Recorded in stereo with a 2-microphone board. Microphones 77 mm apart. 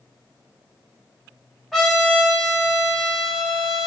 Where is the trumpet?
Centre (ahead or behind), 1.3 m.